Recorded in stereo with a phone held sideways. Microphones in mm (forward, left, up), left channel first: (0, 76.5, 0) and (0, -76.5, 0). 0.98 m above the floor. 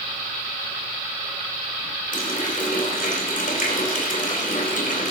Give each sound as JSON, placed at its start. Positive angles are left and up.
{"t": 2.1, "sound": "a running tap", "side_deg": 60, "distance_m": 3.5}